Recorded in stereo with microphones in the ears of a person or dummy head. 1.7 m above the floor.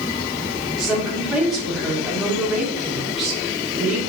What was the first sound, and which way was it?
A woman speaking, centre (ahead or behind).